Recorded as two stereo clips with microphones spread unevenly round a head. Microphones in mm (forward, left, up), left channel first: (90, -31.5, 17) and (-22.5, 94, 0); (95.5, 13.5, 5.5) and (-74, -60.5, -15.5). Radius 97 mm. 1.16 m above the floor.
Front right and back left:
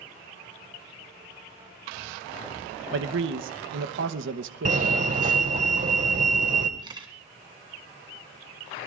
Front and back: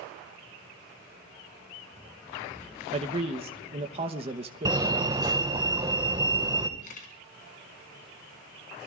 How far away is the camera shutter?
About 3 m.